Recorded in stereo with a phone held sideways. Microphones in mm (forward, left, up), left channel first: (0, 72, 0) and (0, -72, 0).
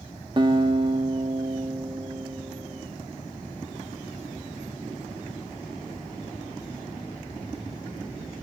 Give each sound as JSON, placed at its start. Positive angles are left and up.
{"t": 0.4, "sound": "a guitar", "side_deg": -35, "distance_m": 1.7}